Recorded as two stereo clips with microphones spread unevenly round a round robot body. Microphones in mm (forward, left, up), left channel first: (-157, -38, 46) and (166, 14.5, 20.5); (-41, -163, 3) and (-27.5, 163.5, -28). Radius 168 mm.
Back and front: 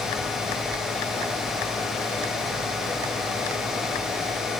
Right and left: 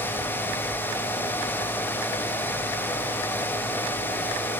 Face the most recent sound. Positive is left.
No sound to turn to.